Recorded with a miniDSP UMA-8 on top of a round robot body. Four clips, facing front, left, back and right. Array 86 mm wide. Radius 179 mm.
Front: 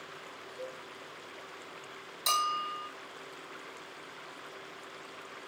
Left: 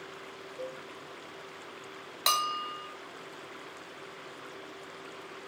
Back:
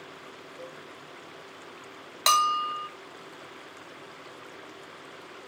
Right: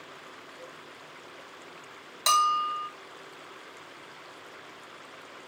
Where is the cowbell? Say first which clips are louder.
Left 9 dB, front 2 dB; 85° left, 4 m.